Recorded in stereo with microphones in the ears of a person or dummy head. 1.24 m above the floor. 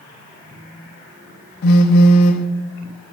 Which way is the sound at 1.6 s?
60° left (ahead or behind).